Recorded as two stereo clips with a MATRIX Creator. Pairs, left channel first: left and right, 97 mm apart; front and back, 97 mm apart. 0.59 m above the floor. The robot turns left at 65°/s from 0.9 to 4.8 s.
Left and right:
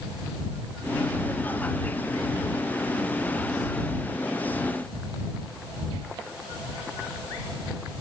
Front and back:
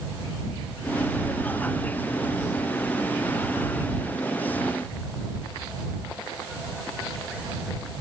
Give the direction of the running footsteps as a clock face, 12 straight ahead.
No running footsteps in this recording.